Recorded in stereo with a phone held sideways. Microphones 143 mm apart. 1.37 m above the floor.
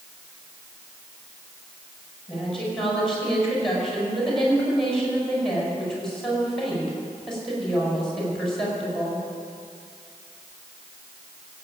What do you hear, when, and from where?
2.3 s a woman speaking: 5° left (ahead or behind), 6 m